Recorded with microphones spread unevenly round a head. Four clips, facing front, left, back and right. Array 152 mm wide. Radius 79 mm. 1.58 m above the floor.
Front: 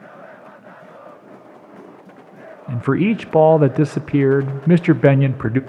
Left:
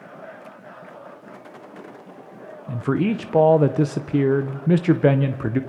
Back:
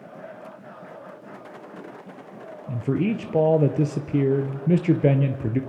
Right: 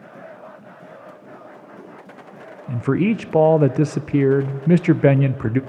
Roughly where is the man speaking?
Right.